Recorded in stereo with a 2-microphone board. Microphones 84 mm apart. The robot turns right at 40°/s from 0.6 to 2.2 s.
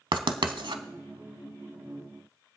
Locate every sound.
0.1 s writing: 85° right, 0.8 m; by 0.8 s 80° right, 0.8 m